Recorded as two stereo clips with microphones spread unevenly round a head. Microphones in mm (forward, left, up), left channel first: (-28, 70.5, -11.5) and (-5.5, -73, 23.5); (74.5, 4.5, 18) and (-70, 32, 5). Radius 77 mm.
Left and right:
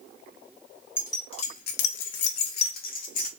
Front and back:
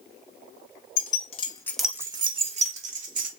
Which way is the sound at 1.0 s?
20° left.